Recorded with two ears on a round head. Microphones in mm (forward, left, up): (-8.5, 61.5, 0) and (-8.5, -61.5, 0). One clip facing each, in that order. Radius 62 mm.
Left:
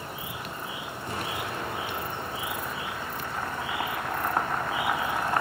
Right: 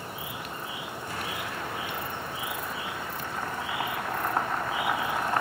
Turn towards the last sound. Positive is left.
turn(degrees=25)  # may be behind; listen again after turning